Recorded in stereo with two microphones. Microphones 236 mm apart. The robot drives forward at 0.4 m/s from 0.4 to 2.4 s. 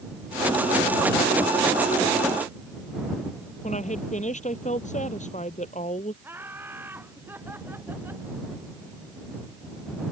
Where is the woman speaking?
30° left (ahead or behind).